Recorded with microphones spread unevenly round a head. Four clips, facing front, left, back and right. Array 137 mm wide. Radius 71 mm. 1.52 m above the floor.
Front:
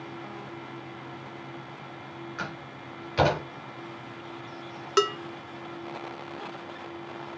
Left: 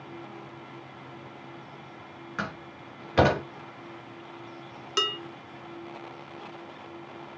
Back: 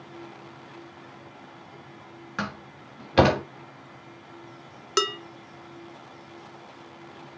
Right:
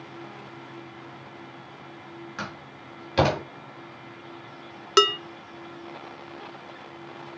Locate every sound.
2.4 s a door slam: 175° left, 4 m
5.0 s dishes clattering: 85° right, 1.0 m